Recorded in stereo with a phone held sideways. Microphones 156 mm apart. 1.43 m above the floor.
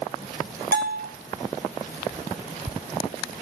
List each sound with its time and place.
0.7 s a bell: 85° right, 1.3 m